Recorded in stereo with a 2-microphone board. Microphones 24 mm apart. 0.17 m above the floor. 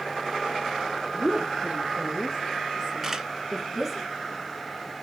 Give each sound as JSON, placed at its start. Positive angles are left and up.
{"t": 1.1, "sound": "a woman speaking", "side_deg": -60, "distance_m": 2.5}
{"t": 3.0, "sound": "a camera shutter", "side_deg": -20, "distance_m": 1.6}